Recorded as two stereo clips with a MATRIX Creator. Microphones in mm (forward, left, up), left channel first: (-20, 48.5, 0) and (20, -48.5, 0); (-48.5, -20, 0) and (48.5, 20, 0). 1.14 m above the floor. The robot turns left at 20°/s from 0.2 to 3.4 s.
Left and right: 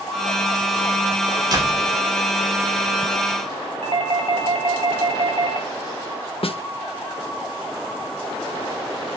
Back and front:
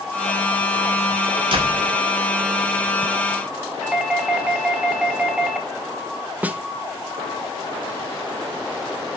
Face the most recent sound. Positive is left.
turn(degrees=95)